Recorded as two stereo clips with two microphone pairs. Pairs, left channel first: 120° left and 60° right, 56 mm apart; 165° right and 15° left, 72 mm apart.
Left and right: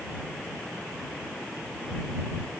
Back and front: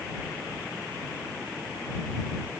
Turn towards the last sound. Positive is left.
No sound to turn to.